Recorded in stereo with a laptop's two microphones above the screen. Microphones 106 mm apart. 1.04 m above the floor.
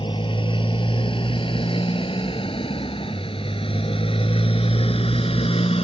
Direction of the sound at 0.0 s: 50° left (ahead or behind).